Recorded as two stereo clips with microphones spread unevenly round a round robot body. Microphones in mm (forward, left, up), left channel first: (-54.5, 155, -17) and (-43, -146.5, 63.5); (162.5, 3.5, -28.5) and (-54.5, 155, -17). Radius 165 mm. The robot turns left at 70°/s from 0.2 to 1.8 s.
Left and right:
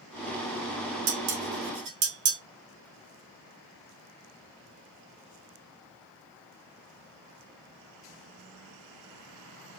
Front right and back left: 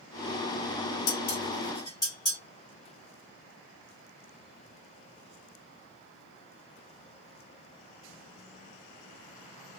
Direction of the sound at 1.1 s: 65° right.